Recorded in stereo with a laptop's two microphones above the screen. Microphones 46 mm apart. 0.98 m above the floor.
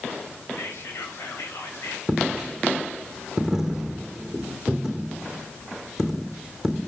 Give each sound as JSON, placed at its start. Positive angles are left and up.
{"t": 0.5, "sound": "whispering", "side_deg": 60, "distance_m": 6.5}
{"t": 2.1, "sound": "a dropped coin", "side_deg": -5, "distance_m": 2.5}